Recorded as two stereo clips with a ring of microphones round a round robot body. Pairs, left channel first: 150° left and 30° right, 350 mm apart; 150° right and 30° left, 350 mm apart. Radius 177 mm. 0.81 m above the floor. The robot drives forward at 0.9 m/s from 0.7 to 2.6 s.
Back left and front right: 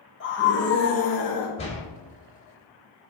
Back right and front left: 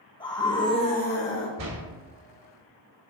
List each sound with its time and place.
0.2 s a scream: 145° left, 1.0 m; by 1.5 s 165° left, 1.4 m
1.6 s a door slam: 75° left, 2.5 m; by 1.8 s 80° left, 2 m